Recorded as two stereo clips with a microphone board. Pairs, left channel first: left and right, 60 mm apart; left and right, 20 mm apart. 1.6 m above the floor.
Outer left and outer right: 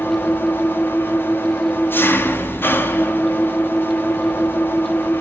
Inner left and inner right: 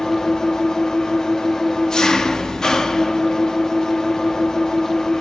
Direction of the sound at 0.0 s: 35° left (ahead or behind).